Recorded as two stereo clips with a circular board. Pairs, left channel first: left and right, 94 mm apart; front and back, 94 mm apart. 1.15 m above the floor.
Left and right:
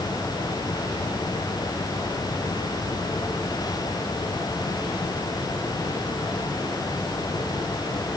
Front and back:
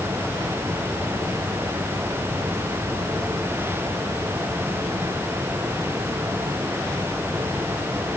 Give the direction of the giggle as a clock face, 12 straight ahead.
No giggle in this recording.